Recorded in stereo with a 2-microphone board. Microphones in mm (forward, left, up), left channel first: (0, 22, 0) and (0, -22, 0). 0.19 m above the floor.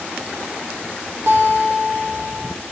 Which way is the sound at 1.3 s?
65° right (ahead or behind).